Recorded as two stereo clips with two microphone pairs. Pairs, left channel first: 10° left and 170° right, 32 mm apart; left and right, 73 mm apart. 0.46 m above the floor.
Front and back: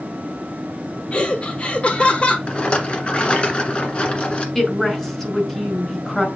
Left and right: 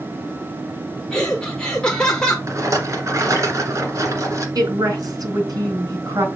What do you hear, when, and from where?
1.1 s laughter: 20° left, 0.9 m
2.5 s a rattle: 45° right, 1.6 m
4.5 s a woman speaking: 65° right, 2.5 m